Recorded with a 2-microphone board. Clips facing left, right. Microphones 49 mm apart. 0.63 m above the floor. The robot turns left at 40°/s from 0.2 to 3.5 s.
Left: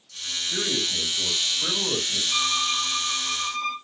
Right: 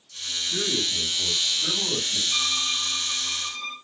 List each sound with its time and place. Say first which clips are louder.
0.5 s a man speaking: even; 130° left, 2.5 m; by 2.2 s 60° left, 2.5 m
2.3 s a violin: left 4 dB; 140° left, 1.4 m; by 3.8 s 95° left, 1.4 m